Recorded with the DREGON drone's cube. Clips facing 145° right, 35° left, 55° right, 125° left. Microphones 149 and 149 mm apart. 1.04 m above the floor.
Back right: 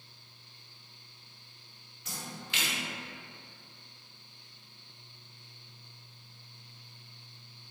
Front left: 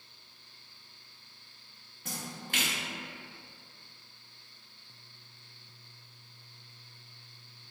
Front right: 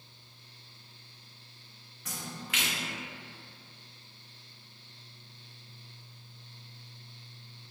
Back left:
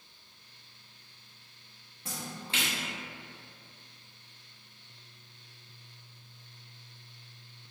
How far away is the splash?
About 0.6 m.